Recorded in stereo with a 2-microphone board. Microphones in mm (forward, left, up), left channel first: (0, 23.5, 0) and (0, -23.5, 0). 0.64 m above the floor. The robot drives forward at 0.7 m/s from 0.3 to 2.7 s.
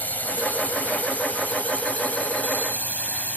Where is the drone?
40° left (ahead or behind); by 3.4 s 35° left (ahead or behind).